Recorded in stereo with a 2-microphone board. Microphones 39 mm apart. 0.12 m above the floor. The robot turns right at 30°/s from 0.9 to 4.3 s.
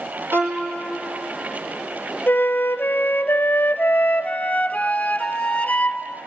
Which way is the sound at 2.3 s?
70° left.